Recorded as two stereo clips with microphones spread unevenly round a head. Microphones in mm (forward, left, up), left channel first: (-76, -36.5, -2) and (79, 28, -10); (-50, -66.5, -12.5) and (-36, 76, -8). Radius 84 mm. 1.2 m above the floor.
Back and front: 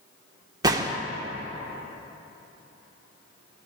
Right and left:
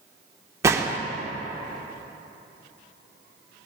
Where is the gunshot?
60° left, 0.8 m.